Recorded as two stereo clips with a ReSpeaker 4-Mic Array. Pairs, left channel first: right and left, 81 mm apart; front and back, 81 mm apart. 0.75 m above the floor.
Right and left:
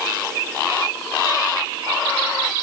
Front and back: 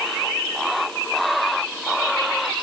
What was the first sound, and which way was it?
Only background noise.